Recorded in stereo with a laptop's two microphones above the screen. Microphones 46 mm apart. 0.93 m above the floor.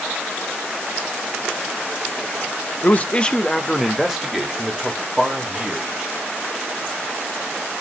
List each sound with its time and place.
2.8 s a man speaking: 40° left (ahead or behind), 0.6 m; by 6.1 s 20° right (ahead or behind), 2 m